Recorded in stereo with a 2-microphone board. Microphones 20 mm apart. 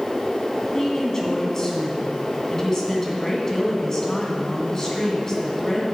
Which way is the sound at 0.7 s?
25° left (ahead or behind).